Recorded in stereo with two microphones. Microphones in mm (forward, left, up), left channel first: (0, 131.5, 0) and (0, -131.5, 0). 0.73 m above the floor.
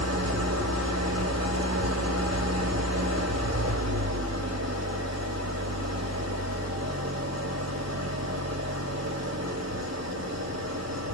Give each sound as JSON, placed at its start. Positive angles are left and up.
{"t": 0.0, "sound": "an engine running", "side_deg": -70, "distance_m": 2.0}